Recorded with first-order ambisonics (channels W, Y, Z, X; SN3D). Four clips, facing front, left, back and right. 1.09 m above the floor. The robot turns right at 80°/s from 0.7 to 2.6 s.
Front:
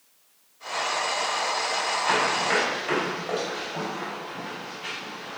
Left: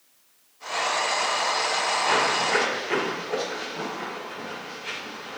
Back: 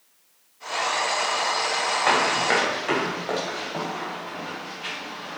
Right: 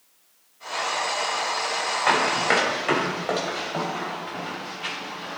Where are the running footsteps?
155° right, 3.5 m; by 5.4 s 115° right, 6 m.